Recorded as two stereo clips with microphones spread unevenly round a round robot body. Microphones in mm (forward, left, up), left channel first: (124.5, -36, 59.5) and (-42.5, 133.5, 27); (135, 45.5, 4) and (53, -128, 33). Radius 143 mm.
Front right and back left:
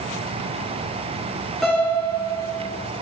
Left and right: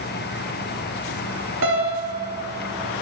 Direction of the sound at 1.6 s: 135° right.